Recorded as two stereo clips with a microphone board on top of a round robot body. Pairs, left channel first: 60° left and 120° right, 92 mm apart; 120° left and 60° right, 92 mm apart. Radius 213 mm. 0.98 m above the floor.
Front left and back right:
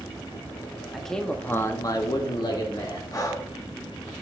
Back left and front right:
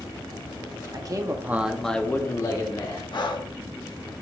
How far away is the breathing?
About 1.2 m.